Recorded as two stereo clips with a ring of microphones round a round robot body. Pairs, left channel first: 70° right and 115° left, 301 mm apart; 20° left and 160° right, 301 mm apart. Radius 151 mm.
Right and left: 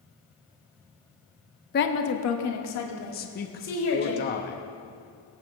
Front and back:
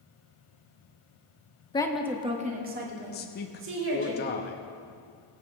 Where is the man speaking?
20° right, 0.8 m.